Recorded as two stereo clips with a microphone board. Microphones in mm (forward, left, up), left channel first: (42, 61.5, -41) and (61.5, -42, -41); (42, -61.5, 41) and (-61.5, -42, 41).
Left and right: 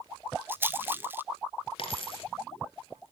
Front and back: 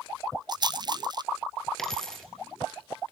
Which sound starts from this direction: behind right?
A rattle, at 0.5 s.